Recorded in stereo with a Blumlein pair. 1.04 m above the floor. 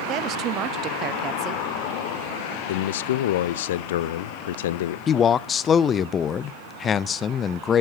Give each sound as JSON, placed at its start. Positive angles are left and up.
{"t": 0.1, "sound": "a woman speaking", "azimuth_deg": -30, "distance_m": 0.7}
{"t": 2.7, "sound": "a man speaking", "azimuth_deg": 55, "distance_m": 0.6}
{"t": 5.1, "sound": "a man speaking", "azimuth_deg": 25, "distance_m": 0.5}